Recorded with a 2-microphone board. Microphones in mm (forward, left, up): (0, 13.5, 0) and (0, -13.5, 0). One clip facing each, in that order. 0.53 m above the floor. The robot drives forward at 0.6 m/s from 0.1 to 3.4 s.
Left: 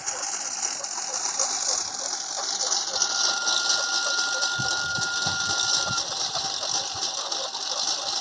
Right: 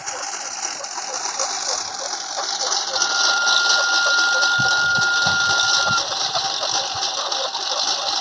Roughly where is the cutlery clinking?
I don't hear cutlery clinking.